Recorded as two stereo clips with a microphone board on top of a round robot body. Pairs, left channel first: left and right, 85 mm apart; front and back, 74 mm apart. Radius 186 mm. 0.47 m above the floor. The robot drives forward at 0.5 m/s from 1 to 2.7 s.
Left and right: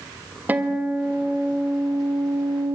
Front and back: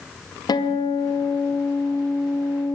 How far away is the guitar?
About 1.2 m.